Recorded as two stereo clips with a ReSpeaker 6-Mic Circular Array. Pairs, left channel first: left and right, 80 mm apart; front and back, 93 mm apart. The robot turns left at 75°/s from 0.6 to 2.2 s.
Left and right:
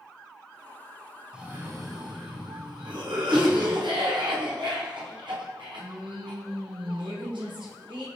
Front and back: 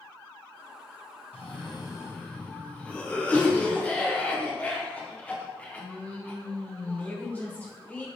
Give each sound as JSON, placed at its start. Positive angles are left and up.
{"t": 1.3, "sound": "a cough", "azimuth_deg": -10, "distance_m": 1.0}